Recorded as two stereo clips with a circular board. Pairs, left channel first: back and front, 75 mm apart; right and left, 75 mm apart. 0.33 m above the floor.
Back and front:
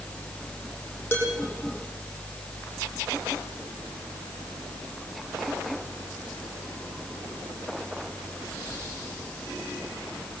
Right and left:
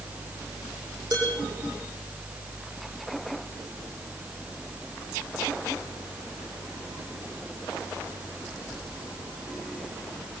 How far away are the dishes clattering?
About 9.5 m.